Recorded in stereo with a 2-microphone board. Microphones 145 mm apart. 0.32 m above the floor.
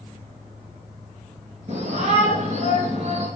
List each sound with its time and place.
1.7 s a shout: 50° right (ahead or behind), 5 m; by 3.3 s 45° right (ahead or behind), 3.5 m